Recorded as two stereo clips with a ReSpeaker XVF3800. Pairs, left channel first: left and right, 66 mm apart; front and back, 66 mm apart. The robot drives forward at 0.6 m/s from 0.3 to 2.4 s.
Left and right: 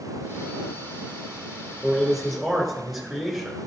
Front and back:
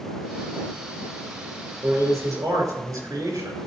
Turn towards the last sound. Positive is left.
turn(degrees=-175)